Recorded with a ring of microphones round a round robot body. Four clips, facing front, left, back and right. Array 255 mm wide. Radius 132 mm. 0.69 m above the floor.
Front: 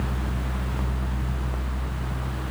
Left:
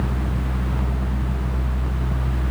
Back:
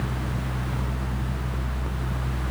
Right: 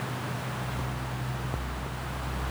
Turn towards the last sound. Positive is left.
No sound to turn to.